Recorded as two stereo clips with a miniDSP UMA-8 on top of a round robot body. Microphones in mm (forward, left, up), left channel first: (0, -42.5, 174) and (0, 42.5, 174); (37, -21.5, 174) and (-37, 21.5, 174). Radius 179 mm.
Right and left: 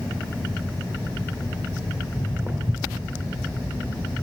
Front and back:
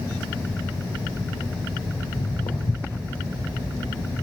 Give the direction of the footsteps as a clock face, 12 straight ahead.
1 o'clock.